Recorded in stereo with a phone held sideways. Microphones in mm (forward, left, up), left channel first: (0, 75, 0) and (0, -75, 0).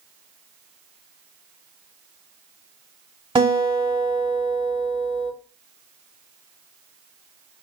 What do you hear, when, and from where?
3.4 s a guitar: 30° right (ahead or behind), 1.8 m